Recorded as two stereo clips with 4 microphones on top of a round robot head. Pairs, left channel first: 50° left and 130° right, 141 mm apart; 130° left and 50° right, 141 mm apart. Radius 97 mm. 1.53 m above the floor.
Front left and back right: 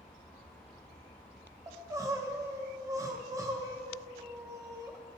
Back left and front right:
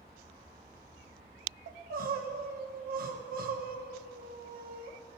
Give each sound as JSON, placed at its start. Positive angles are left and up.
{"t": 1.7, "sound": "crying", "azimuth_deg": -60, "distance_m": 1.1}